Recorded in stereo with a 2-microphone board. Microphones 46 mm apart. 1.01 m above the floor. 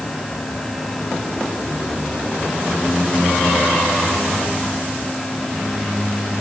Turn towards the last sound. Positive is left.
No sound to turn to.